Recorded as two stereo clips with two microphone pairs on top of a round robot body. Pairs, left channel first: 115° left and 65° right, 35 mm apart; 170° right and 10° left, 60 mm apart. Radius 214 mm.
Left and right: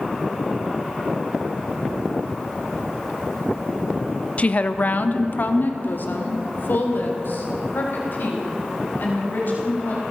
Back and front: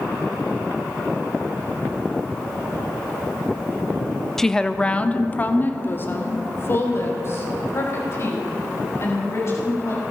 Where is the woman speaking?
95° left, 1.3 m; by 10.0 s 145° left, 5.5 m.